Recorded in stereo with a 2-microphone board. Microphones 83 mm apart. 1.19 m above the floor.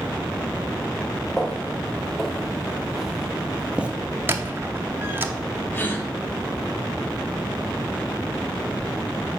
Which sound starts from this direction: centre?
Footsteps, at 1.4 s.